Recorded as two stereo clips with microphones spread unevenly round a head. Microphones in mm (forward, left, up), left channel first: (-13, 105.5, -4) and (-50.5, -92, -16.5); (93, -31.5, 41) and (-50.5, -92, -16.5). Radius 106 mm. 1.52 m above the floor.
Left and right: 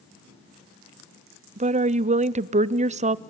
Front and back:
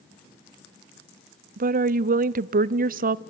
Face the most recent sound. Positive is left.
turn(degrees=-155)